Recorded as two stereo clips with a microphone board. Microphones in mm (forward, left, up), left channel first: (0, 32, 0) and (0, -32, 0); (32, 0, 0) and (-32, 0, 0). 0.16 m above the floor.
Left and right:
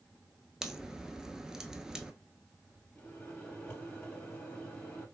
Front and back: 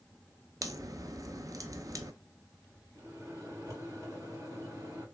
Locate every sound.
0.6 s a crack: 170° right, 0.6 m
3.0 s a microwave: 165° left, 3 m